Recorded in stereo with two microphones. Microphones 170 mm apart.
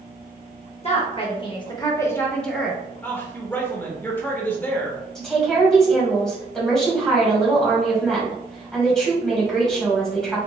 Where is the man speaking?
10° left (ahead or behind), 0.8 m.